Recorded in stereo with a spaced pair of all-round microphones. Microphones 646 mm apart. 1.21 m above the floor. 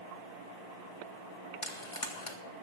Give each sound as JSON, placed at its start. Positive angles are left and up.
{"t": 1.6, "sound": "frying", "side_deg": 50, "distance_m": 1.6}